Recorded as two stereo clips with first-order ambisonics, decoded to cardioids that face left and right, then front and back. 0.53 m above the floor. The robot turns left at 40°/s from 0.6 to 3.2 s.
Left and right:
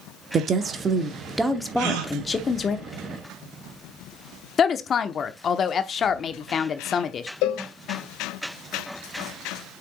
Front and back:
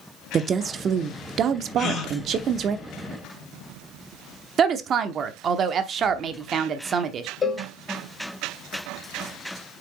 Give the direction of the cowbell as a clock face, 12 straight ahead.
10 o'clock.